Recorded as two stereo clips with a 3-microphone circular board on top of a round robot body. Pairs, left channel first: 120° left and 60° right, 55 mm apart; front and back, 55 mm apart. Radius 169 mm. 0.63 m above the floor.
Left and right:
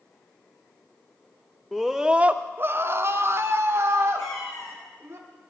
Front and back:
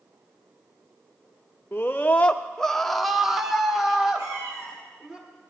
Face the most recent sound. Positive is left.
turn(degrees=145)